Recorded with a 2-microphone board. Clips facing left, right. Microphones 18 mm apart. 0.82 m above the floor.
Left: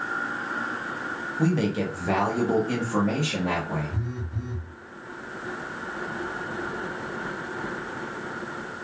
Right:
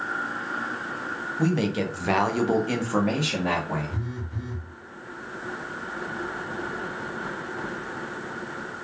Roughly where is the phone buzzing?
Right.